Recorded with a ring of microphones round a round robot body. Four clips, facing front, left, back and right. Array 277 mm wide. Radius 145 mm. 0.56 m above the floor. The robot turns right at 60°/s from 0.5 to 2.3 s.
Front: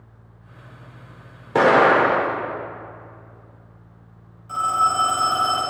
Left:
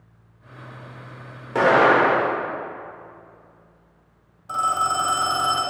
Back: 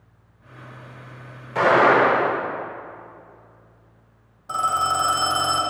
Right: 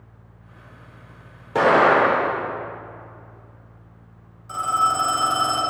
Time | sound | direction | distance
1.6 | an explosion | 5° right | 1.9 m
4.5 | a phone ringing | 155° left | 1.8 m